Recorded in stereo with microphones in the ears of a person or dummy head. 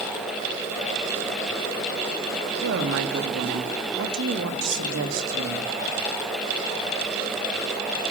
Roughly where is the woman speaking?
Right.